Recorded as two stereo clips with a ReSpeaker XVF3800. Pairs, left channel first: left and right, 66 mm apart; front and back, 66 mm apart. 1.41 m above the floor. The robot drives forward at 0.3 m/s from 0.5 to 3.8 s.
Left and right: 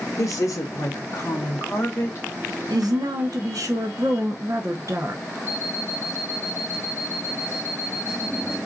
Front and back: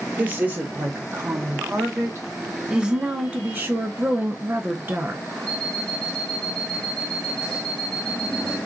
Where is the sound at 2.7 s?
100° right, 0.8 m; by 5.2 s 120° right, 0.9 m.